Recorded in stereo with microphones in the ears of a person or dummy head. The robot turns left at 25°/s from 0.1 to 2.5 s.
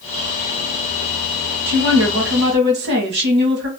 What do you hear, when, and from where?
1.7 s a woman speaking: 65° right (ahead or behind), 1.6 m; by 3.7 s 50° right (ahead or behind), 1.6 m